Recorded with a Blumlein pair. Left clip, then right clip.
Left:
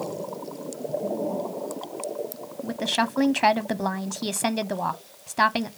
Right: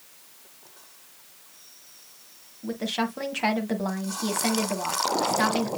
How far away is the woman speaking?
About 1.2 m.